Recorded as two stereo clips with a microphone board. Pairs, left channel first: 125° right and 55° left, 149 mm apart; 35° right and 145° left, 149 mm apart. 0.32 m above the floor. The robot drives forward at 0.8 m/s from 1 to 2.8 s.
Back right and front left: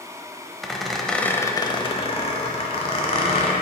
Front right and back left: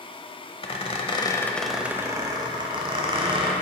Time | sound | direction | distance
0.6 | a squeak | 35° right | 0.7 m